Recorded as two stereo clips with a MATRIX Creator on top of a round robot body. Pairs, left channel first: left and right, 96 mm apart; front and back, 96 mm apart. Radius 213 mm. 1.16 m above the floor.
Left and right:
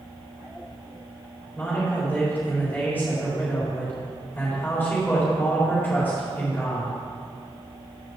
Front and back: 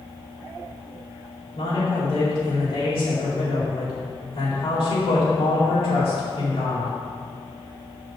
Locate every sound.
1.6 s a man speaking: 20° left, 4 m